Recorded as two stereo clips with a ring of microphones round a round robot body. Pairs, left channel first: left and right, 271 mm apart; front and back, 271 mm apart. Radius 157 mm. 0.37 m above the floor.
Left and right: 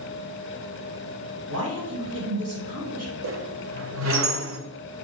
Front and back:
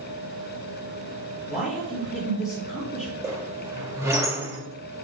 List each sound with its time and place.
1.5 s a man speaking: 90° right, 3 m
3.2 s a squeak: 105° right, 1.1 m